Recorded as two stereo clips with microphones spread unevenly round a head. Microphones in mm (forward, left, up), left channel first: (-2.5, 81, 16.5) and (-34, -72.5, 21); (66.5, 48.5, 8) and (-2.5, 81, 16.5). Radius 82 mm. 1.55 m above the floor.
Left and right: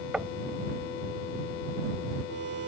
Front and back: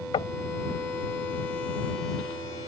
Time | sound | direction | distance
0.1 | knocking | 15° right | ?